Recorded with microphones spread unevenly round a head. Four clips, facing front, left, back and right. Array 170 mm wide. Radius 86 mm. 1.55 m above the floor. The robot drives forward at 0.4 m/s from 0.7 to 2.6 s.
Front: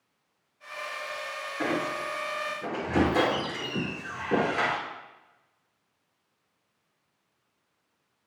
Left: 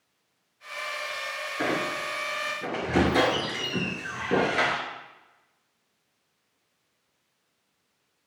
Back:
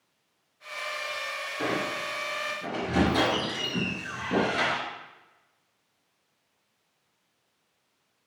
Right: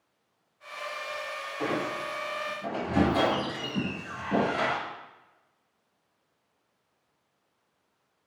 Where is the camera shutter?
No camera shutter in this recording.